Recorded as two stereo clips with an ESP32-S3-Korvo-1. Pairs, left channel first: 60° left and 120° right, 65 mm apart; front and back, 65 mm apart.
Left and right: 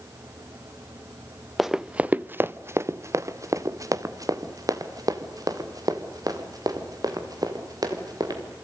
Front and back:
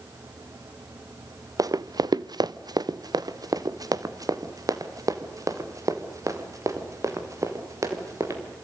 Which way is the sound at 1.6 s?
150° left.